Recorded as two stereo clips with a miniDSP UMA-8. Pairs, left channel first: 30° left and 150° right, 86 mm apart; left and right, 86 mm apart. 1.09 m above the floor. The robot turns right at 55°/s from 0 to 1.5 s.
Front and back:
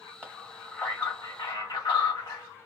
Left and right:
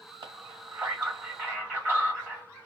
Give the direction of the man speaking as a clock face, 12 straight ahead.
2 o'clock.